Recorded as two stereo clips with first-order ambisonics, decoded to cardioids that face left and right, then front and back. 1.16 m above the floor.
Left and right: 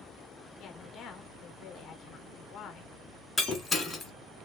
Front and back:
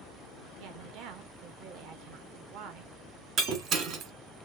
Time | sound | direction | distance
0.6 | a woman speaking | 150° left | 1.3 m
3.4 | breaking glass | 170° left | 1.3 m